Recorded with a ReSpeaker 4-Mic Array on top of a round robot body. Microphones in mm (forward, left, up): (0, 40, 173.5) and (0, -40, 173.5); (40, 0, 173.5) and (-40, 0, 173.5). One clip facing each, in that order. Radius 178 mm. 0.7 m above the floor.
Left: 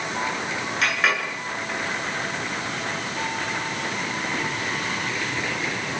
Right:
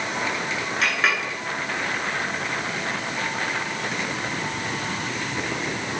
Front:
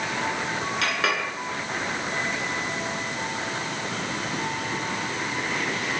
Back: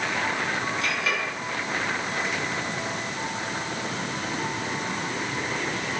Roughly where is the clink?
Ahead.